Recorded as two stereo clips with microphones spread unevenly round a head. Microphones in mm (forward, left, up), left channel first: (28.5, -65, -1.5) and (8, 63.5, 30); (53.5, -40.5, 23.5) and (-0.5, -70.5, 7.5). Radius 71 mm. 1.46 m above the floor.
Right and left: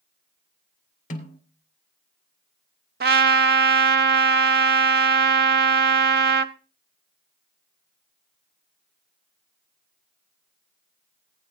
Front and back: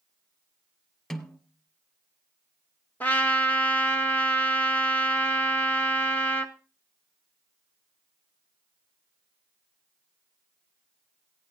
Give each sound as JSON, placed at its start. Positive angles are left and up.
{"t": 1.1, "sound": "a snare drum", "azimuth_deg": -50, "distance_m": 3.0}
{"t": 3.0, "sound": "a trumpet", "azimuth_deg": 105, "distance_m": 0.8}